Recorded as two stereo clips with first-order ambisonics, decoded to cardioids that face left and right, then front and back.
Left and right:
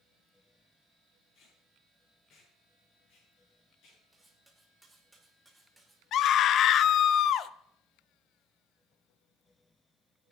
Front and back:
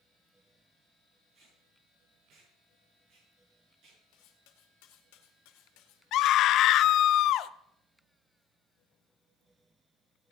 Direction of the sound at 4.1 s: 5° right.